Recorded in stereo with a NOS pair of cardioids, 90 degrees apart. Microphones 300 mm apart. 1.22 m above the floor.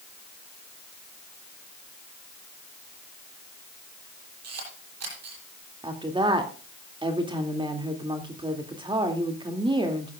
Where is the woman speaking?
15° right, 2.5 m.